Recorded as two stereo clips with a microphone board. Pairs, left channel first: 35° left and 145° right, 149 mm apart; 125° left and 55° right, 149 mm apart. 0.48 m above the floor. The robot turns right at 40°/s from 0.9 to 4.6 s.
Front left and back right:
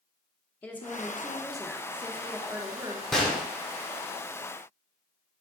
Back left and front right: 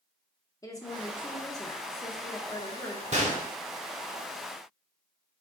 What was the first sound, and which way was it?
A woman speaking, 95° left.